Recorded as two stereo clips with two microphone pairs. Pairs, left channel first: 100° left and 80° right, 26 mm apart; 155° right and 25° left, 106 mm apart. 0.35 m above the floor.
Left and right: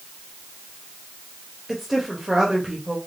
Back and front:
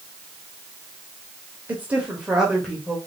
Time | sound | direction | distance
1.7 | a woman speaking | straight ahead | 1.0 m